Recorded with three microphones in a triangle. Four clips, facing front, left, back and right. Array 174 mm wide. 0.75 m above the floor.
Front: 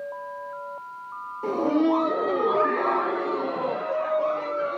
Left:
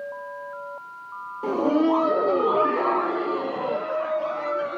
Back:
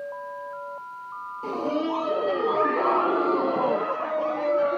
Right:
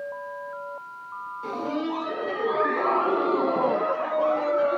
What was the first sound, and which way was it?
Laughter, 65° left.